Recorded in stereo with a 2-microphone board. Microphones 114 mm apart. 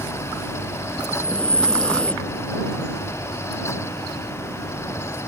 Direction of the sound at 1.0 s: 10° left (ahead or behind).